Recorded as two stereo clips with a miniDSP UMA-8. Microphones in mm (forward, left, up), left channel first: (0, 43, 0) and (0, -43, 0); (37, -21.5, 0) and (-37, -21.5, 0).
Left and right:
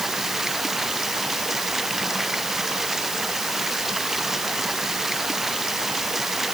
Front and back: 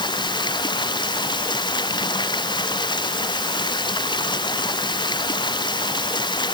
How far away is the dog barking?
I don't hear a dog barking.